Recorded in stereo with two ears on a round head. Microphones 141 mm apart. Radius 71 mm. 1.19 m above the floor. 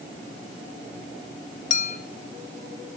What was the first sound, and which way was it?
A clink, 50° left (ahead or behind).